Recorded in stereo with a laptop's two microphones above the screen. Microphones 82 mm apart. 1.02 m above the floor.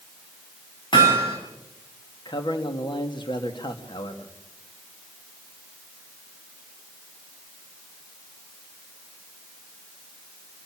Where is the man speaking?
70° left (ahead or behind), 2.0 m.